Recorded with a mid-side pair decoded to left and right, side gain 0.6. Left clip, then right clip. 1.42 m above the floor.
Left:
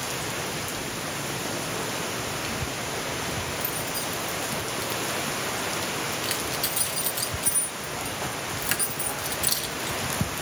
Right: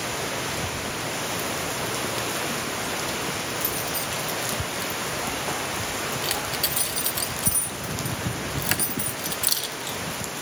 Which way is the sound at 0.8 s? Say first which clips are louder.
Right 2 dB; 15° right.